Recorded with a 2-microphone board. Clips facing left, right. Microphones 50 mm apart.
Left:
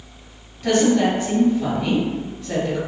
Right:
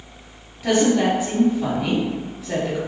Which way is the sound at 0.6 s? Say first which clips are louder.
Left 1 dB; 5° right (ahead or behind).